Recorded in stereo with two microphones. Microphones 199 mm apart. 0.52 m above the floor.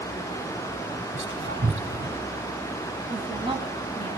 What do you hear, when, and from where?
1.1 s whispering: 70° right (ahead or behind), 4 m
3.1 s a woman speaking: 25° right (ahead or behind), 3 m